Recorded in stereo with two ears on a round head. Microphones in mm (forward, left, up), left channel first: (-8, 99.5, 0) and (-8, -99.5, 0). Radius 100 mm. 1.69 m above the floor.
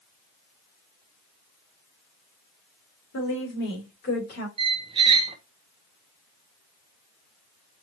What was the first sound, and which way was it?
A woman speaking, 60° left (ahead or behind).